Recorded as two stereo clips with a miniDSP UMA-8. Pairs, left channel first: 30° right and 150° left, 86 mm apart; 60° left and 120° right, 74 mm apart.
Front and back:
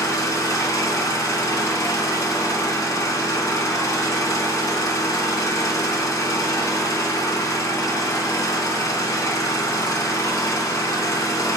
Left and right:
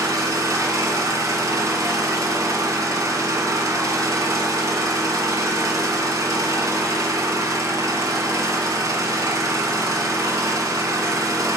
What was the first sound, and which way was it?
An engine running, 80° right.